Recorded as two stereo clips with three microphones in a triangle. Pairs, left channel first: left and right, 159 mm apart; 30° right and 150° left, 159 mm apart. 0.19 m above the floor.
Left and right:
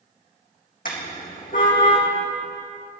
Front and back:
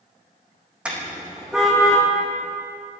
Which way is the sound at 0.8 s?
65° left.